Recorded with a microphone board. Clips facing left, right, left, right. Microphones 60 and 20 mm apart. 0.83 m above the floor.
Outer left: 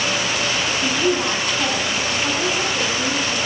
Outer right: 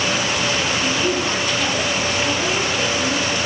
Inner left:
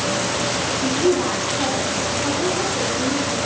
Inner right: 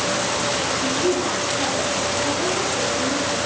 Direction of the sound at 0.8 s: 15° left (ahead or behind).